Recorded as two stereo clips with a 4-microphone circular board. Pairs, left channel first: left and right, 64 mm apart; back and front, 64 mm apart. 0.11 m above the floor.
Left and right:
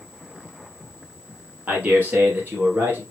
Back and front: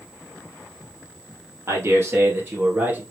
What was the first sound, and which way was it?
A man speaking, 30° right.